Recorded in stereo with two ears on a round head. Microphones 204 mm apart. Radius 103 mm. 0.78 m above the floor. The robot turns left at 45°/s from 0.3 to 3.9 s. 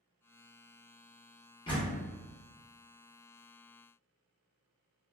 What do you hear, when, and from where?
1.7 s a door slam: 20° left (ahead or behind), 0.8 m; by 2.1 s 40° left (ahead or behind), 0.8 m